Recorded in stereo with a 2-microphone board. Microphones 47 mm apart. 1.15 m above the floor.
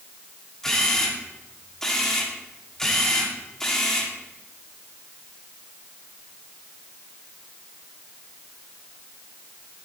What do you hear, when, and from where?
0.6 s a camera shutter: 10° left (ahead or behind), 2.5 m